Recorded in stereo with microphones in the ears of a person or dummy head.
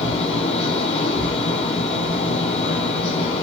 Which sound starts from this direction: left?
A fan, at 0.0 s.